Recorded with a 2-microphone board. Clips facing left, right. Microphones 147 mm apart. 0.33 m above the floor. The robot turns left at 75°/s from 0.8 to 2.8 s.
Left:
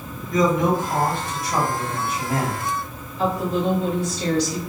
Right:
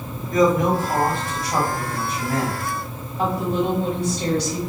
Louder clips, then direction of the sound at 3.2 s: Even; 50° right (ahead or behind).